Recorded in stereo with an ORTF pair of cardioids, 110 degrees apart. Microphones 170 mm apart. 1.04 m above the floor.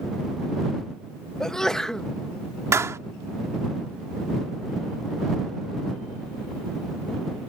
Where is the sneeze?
5° left.